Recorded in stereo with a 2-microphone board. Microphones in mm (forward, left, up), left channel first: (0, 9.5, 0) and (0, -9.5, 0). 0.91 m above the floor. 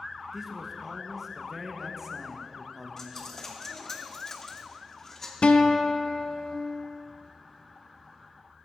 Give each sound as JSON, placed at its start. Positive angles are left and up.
{"t": 0.3, "sound": "a man speaking", "side_deg": -10, "distance_m": 0.9}
{"t": 3.0, "sound": "a dropped coin", "side_deg": 30, "distance_m": 0.8}
{"t": 5.4, "sound": "a guitar", "side_deg": 75, "distance_m": 0.5}